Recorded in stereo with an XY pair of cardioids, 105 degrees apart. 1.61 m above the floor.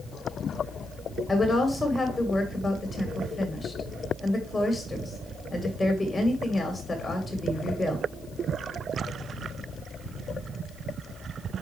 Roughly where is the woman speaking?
Ahead.